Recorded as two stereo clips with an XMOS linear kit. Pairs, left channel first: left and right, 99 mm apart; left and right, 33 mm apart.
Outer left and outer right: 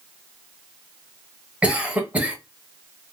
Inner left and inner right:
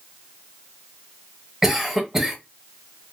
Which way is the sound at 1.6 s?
15° right (ahead or behind).